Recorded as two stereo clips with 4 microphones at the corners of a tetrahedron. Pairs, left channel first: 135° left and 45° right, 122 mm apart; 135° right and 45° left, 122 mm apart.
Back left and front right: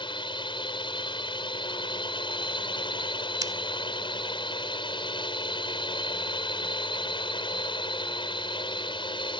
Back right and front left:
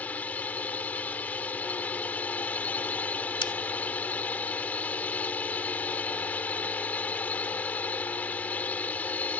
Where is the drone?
150° left.